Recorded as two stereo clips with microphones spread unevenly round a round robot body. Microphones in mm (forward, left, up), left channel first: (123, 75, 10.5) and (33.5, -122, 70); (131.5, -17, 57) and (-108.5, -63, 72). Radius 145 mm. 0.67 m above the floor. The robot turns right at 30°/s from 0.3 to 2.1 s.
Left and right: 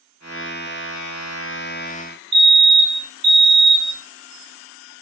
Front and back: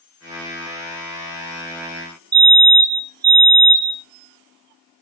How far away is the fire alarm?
About 1.9 m.